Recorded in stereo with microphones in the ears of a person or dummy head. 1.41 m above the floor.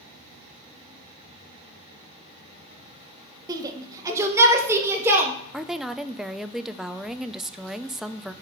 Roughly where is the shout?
Right.